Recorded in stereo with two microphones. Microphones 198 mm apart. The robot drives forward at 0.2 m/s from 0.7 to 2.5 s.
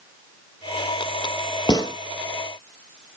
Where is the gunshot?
25° left (ahead or behind), 0.5 m; by 1.9 s 20° left (ahead or behind), 0.6 m.